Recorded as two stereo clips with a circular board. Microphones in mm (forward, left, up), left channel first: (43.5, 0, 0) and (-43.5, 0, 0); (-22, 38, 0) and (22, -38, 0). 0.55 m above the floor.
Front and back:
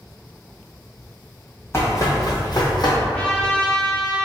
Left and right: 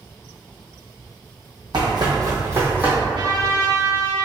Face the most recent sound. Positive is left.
turn(degrees=-75)